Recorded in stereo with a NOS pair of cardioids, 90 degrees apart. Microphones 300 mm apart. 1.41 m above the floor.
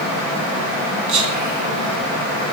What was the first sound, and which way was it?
Whispering, 70° right.